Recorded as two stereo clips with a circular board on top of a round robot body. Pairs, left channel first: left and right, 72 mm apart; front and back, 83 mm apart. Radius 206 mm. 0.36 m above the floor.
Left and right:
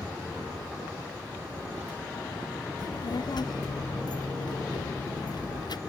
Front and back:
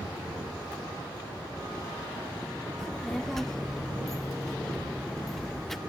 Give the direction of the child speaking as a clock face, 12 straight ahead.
9 o'clock.